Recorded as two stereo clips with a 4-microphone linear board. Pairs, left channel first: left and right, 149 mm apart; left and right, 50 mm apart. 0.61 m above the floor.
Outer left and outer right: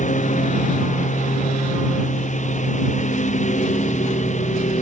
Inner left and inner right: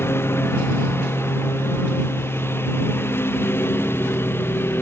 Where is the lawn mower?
60° left (ahead or behind); by 4.8 s 55° left (ahead or behind).